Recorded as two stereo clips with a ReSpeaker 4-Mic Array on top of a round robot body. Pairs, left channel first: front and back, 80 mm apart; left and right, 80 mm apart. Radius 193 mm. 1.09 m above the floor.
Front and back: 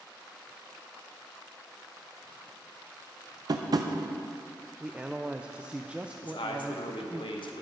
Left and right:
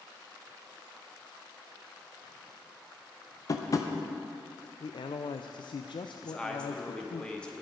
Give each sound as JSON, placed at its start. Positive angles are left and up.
{"t": 3.5, "sound": "tapping", "azimuth_deg": 140, "distance_m": 0.6}
{"t": 4.8, "sound": "a man speaking", "azimuth_deg": 105, "distance_m": 0.5}
{"t": 6.2, "sound": "a man speaking", "azimuth_deg": 10, "distance_m": 1.1}